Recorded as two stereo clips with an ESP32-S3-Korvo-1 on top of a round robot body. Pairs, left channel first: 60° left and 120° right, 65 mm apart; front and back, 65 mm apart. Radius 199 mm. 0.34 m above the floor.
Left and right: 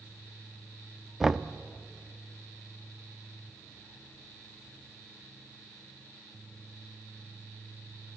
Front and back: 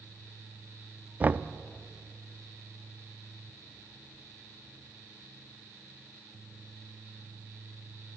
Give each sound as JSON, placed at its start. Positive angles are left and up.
{"t": 1.2, "sound": "knocking", "azimuth_deg": 165, "distance_m": 0.6}